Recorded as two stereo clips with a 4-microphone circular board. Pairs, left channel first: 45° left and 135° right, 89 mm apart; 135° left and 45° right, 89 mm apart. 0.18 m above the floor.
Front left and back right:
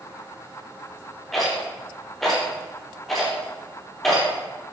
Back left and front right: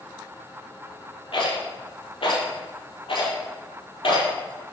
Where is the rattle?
135° left, 5.5 m.